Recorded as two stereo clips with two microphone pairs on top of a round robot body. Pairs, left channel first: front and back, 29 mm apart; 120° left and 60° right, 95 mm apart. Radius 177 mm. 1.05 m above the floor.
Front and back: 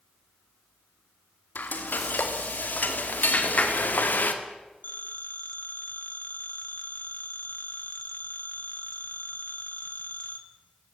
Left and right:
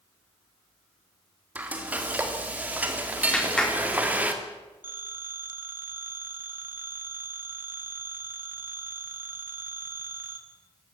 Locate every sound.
1.6 s frying: 15° left, 2 m
3.3 s a clap: 40° left, 3.5 m
4.8 s a phone ringing: 10° left, 2.5 m